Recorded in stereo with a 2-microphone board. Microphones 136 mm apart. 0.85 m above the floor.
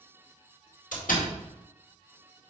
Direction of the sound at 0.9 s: 80° left.